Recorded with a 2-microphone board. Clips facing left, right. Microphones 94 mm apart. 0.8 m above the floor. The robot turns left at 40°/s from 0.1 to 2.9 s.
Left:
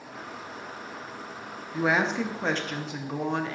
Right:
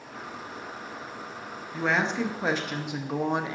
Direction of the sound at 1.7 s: 20° left.